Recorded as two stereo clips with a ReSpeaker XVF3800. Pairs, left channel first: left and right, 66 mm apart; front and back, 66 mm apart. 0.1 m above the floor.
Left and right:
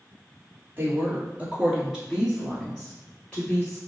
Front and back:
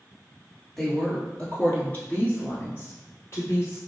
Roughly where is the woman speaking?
Right.